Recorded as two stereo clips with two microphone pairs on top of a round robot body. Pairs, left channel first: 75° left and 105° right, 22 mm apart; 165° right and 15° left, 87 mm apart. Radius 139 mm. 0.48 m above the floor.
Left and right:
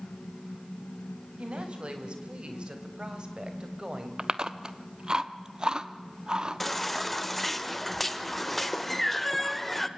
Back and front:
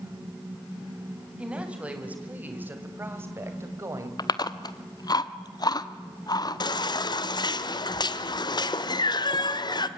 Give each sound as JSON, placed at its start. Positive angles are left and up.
{"t": 1.4, "sound": "a woman speaking", "azimuth_deg": -65, "distance_m": 3.5}
{"t": 4.2, "sound": "chewing", "azimuth_deg": -160, "distance_m": 1.2}
{"t": 6.6, "sound": "a baby crying", "azimuth_deg": 155, "distance_m": 1.2}